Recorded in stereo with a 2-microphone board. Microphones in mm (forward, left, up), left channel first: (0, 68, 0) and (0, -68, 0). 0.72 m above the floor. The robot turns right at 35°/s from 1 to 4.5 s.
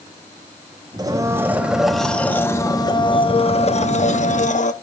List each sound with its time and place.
1.0 s a blender: 30° right, 0.5 m; by 4.7 s 90° left, 0.5 m